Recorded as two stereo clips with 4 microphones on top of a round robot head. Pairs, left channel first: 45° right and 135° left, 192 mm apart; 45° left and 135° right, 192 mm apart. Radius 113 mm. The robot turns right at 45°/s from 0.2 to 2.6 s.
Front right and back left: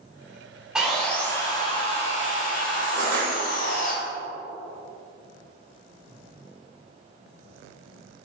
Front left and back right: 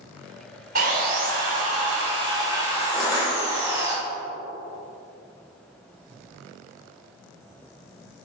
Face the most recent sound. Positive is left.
turn(degrees=120)